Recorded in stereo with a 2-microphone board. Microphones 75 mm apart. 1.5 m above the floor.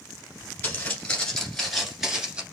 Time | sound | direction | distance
0.6 | footsteps | 25° left (ahead or behind) | 1.6 m